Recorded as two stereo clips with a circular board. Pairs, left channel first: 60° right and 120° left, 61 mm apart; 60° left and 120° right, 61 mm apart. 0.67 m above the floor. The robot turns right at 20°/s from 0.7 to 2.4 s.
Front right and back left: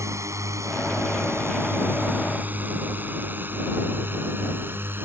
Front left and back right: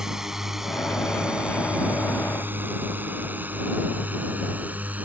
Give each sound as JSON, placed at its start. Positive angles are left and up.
{"t": 0.0, "sound": "a drone", "azimuth_deg": 155}